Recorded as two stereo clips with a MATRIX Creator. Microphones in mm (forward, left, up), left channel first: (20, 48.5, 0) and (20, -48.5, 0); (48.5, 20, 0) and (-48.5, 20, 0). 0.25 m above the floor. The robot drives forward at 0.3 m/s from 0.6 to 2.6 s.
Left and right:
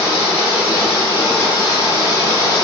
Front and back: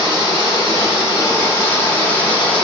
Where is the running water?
40° left, 1.6 m; by 2.7 s 70° left, 1.3 m.